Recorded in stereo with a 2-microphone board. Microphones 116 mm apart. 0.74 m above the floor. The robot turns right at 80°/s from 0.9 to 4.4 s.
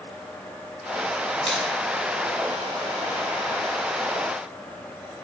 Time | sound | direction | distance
1.5 | a finger snap | centre (ahead or behind) | 6 m